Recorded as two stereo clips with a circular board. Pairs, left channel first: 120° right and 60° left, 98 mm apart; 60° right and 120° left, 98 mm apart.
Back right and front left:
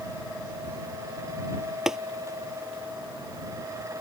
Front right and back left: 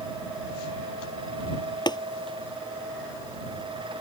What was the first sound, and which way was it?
Tapping, 25° right.